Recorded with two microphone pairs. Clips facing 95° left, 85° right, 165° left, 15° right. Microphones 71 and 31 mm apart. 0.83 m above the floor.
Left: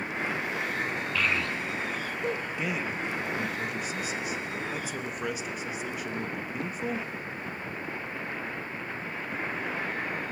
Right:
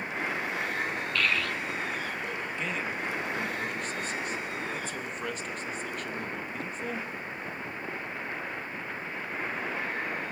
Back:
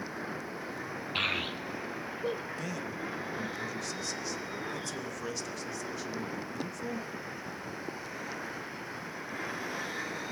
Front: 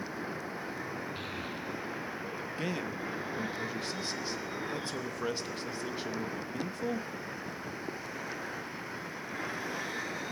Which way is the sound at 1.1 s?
175° left.